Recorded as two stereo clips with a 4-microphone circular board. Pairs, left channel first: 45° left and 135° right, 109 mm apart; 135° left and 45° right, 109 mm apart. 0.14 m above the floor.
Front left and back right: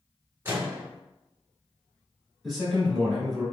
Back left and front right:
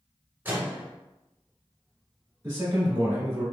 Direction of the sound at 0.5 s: 95° right.